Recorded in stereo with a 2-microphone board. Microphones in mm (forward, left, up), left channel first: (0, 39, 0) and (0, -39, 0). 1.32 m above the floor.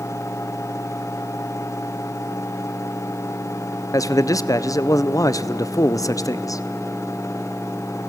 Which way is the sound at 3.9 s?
45° left (ahead or behind).